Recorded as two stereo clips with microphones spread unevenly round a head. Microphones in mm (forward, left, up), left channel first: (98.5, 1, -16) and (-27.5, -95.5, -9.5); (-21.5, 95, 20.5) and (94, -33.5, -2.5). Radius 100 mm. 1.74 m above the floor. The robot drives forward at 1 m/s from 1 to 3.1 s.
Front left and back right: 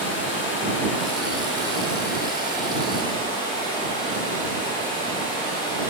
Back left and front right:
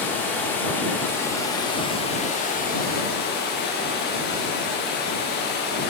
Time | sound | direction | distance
0.0 | running water | 55° left | 2.5 m